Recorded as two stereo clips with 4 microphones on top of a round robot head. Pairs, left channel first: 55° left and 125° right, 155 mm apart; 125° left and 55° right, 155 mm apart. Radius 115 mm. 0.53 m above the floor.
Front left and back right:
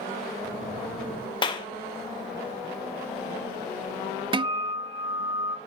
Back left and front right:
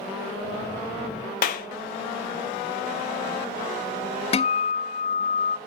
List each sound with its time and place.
1.4 s a clap: 110° left, 1.7 m
4.3 s a guitar: 175° left, 0.7 m